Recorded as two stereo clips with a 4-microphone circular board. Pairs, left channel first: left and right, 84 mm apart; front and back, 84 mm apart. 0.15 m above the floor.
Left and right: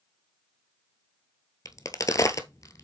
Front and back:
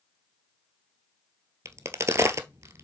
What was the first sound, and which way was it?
A crack, 130° left.